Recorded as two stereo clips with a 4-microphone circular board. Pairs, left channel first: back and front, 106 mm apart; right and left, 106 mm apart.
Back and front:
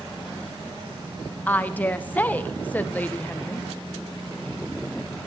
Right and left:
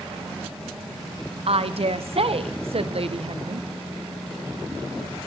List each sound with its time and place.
1.5 s a woman speaking: 105° left, 0.7 m